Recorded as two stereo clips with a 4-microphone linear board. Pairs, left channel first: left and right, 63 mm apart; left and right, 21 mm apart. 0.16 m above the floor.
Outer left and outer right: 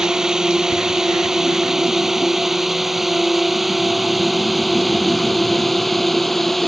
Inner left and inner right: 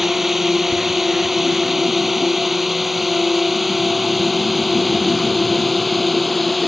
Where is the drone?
10° right (ahead or behind); by 6.7 s 5° left (ahead or behind).